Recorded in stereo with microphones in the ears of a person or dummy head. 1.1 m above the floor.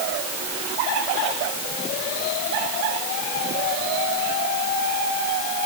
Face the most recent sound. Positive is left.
No sound to turn to.